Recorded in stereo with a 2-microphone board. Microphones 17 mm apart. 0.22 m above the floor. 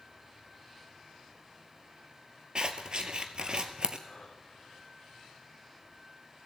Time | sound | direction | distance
2.5 | scissors | 50° right (ahead or behind) | 1.3 m
4.1 | breathing | 50° left (ahead or behind) | 5.5 m